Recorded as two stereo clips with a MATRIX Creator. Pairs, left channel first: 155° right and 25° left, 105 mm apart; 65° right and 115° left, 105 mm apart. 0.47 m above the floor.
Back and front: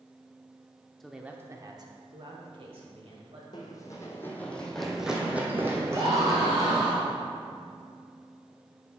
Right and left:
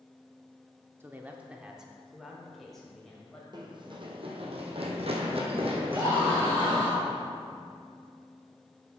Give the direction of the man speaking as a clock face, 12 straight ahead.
8 o'clock.